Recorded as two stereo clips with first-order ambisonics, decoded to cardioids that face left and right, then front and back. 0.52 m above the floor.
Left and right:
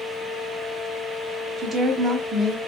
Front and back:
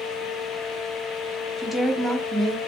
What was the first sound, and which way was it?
A woman speaking, 75° right.